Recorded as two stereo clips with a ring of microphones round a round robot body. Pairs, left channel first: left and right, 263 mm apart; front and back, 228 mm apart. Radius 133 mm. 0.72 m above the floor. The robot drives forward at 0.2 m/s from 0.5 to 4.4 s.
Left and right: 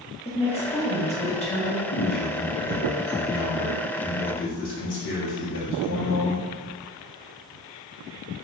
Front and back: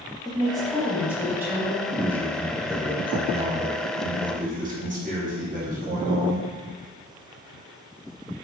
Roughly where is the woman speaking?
Left.